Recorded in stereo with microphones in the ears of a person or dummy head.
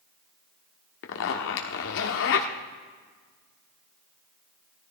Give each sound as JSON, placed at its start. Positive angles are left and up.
{"t": 1.0, "sound": "a zipper", "side_deg": 65, "distance_m": 1.2}